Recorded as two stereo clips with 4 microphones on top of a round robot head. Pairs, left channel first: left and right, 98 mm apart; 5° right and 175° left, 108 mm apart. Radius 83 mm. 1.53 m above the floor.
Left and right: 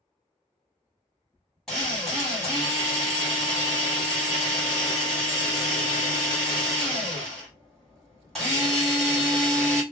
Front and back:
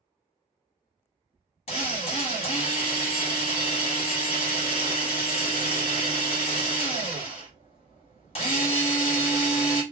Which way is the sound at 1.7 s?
Straight ahead.